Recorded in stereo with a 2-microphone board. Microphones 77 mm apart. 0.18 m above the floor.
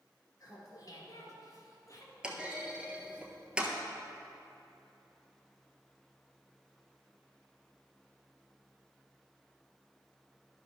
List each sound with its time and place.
0.4 s laughter: 45° left (ahead or behind), 3 m; by 2.1 s 40° left (ahead or behind), 2.0 m
2.2 s a clunk: 15° right (ahead or behind), 1.2 m